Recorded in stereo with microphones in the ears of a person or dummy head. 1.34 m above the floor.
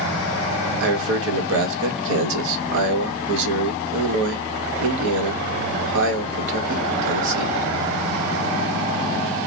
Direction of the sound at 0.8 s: 70° right (ahead or behind).